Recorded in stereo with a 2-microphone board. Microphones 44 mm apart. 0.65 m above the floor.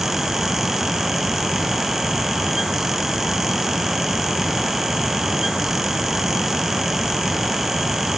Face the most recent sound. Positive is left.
No sound to turn to.